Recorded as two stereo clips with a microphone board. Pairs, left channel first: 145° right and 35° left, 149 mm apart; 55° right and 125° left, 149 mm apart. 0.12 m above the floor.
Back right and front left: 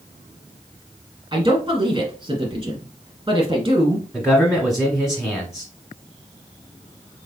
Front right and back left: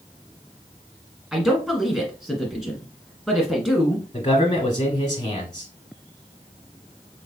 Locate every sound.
1.3 s a man speaking: 40° left, 1.4 m
4.1 s a man speaking: 50° right, 1.2 m